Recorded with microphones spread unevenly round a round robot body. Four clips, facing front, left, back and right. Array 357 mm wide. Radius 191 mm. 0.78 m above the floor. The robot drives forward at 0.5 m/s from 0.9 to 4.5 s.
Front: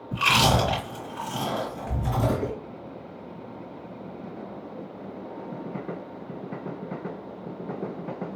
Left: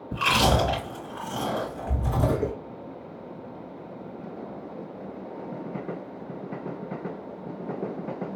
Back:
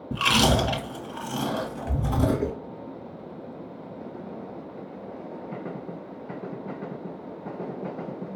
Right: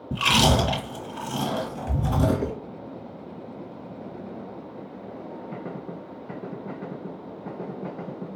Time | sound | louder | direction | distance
0.1 | chewing | right 1 dB, even | 130° right | 1.6 m